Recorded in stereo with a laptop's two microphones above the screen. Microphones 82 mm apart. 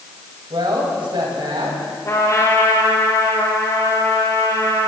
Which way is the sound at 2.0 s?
40° left (ahead or behind).